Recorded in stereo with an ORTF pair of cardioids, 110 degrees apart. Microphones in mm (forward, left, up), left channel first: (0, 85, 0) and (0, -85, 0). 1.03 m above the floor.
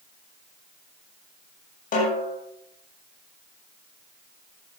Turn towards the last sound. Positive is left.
turn(degrees=55)